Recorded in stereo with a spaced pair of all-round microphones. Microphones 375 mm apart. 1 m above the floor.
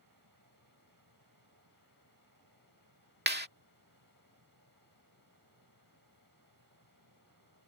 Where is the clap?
30° right (ahead or behind).